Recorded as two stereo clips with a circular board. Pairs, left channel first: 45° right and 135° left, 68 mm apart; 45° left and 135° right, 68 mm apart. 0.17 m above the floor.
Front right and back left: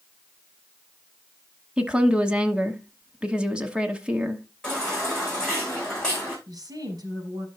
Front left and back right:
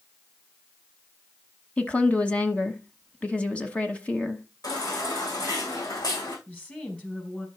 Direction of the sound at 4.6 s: 35° left.